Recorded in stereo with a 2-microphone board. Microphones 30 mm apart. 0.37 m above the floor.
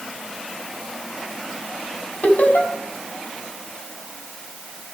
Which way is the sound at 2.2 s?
60° left (ahead or behind).